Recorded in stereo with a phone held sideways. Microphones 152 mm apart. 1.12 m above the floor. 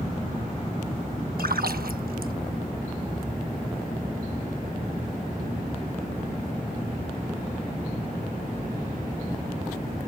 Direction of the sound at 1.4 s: 80° right.